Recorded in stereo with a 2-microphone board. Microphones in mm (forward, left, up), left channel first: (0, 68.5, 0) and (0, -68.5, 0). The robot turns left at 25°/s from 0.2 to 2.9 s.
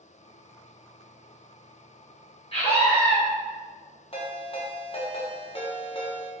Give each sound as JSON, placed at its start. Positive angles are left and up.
{"t": 2.5, "sound": "a scream", "side_deg": 45, "distance_m": 1.5}
{"t": 4.1, "sound": "a ringtone", "side_deg": 45, "distance_m": 0.7}